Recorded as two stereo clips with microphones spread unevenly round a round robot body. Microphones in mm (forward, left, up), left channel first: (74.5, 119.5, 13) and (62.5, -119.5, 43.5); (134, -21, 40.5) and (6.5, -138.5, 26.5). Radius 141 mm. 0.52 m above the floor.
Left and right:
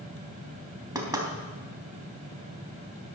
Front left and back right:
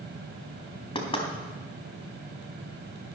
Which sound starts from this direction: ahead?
Knocking, at 0.9 s.